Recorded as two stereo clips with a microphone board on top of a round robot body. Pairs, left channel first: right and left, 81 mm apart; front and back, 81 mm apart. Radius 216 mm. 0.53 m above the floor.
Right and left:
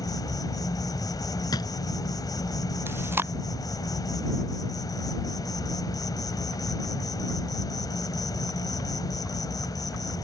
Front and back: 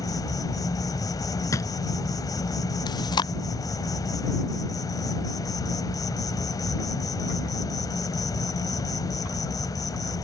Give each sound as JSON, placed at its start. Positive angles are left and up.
{"t": 0.0, "sound": "an insect", "azimuth_deg": -45}
{"t": 1.5, "sound": "a drawer", "azimuth_deg": -50}
{"t": 2.9, "sound": "chewing", "azimuth_deg": 30}